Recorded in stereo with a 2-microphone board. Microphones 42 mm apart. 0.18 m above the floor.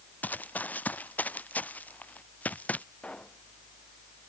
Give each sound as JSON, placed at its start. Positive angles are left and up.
{"t": 0.2, "sound": "running footsteps", "side_deg": 40}
{"t": 3.0, "sound": "a pop", "side_deg": 25}